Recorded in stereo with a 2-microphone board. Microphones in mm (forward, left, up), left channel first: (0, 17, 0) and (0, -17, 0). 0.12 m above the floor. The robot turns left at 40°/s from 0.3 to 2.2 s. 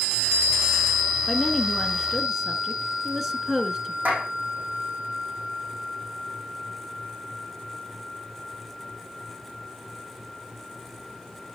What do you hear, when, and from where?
1.3 s a woman speaking: 10° left (ahead or behind), 1.0 m; by 4.0 s 5° right (ahead or behind), 1.0 m
4.0 s a clap: 65° right (ahead or behind), 5 m